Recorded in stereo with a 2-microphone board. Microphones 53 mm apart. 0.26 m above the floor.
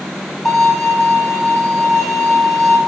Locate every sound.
0.5 s a violin: 5° left (ahead or behind), 4.5 m